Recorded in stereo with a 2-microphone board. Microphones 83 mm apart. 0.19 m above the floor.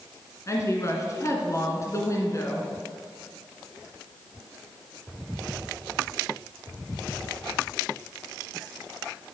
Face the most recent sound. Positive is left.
turn(degrees=40)  # may be behind; listen again after turning